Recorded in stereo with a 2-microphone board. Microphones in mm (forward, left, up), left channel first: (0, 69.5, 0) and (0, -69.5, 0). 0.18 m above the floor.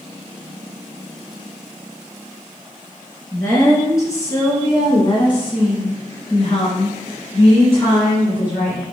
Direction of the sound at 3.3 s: 20° left (ahead or behind).